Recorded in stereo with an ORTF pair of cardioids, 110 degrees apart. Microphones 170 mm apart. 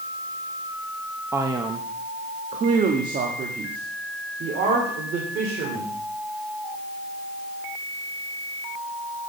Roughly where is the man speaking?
Ahead.